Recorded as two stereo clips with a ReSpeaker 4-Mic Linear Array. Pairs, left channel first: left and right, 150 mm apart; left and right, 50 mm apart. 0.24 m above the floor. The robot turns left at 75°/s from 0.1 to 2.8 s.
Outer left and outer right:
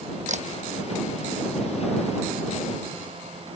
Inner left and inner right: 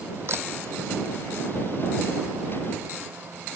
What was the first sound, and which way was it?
A camera shutter, 55° right (ahead or behind).